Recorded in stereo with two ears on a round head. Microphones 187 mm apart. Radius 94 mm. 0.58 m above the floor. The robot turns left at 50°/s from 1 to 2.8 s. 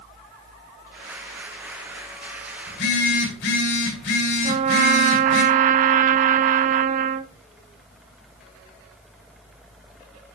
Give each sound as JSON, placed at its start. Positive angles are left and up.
{"t": 2.7, "sound": "a phone buzzing", "side_deg": 60, "distance_m": 4.0}
{"t": 4.4, "sound": "a trumpet", "side_deg": -35, "distance_m": 0.5}